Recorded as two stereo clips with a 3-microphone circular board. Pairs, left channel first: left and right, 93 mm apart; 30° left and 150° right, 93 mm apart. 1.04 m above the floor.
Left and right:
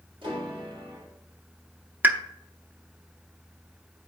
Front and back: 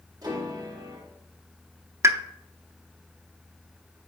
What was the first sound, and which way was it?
A piano, 105° right.